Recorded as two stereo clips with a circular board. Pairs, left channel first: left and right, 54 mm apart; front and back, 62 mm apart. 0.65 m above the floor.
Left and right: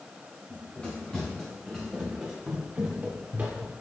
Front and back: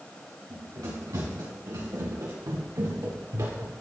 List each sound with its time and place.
0.5 s running footsteps: 155° left, 3.5 m; by 3.7 s 150° right, 3 m